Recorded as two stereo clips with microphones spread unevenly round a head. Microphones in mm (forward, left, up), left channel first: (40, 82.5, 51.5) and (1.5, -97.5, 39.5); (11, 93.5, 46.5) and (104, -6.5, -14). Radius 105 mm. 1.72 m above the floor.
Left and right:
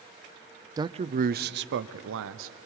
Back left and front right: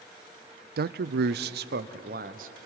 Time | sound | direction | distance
0.8 | a man speaking | 30° right | 0.6 m